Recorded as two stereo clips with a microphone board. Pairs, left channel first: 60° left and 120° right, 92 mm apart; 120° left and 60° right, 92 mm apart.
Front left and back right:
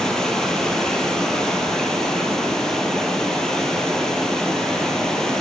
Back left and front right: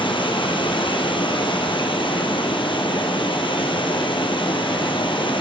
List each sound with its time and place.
0.0 s running water: 145° left, 2.5 m